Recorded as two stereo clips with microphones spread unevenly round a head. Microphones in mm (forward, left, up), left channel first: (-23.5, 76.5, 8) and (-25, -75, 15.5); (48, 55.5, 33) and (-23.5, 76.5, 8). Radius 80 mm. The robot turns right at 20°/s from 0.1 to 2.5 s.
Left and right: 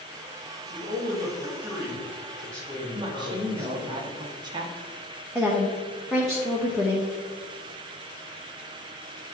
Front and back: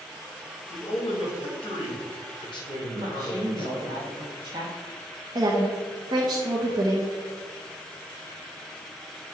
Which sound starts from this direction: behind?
A woman speaking, at 5.3 s.